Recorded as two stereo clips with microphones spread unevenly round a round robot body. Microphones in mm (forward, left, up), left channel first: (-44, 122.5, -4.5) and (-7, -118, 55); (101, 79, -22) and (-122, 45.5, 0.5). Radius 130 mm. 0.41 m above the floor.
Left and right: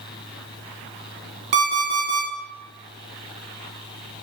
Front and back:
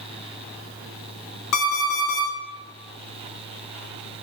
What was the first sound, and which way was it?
An alarm clock, 25° right.